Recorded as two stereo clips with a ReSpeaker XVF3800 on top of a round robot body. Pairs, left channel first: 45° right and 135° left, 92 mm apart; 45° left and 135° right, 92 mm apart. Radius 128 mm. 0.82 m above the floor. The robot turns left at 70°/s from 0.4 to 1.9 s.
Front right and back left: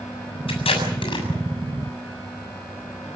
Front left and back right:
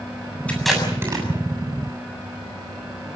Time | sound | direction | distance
0.5 | tape being pulled | 30° right | 7 m